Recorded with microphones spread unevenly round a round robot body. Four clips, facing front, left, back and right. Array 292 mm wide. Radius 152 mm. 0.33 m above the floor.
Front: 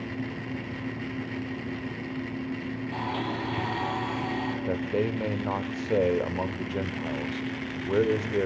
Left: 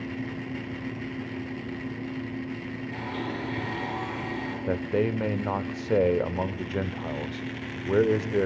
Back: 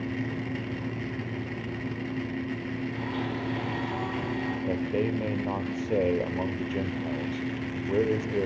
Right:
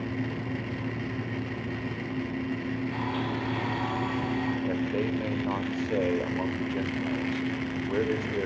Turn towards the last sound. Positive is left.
turn(degrees=70)